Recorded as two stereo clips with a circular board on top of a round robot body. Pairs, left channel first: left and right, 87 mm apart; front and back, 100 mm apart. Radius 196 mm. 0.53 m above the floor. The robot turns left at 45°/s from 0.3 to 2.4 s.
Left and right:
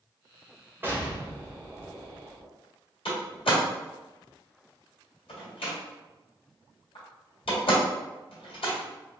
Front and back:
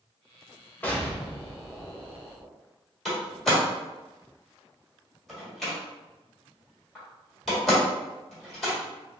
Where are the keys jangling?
No keys jangling in this recording.